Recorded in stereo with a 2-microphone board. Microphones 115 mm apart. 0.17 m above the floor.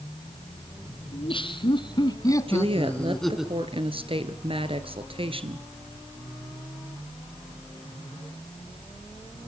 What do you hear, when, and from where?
1.1 s laughter: 50° left (ahead or behind), 2.5 m; by 3.5 s 5° right (ahead or behind), 1.9 m
2.5 s a woman speaking: 50° right (ahead or behind), 2.5 m